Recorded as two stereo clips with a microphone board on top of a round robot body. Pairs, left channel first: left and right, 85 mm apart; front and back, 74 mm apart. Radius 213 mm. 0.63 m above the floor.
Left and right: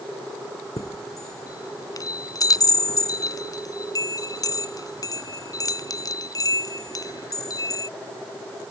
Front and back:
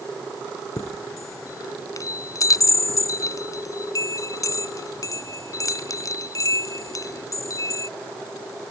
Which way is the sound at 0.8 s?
45° left.